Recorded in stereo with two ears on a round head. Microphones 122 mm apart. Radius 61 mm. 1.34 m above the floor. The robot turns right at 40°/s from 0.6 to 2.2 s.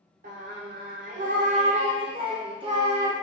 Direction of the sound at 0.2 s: 105° right.